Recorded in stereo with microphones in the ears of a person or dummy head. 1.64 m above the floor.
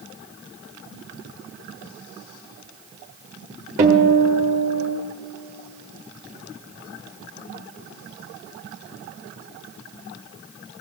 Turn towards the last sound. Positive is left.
turn(degrees=-20)  # may be behind; listen again after turning